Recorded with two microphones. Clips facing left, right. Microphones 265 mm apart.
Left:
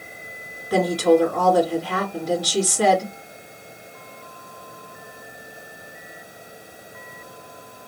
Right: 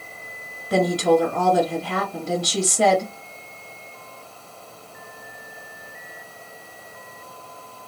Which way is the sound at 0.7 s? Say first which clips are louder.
Left 1 dB; 30° right (ahead or behind).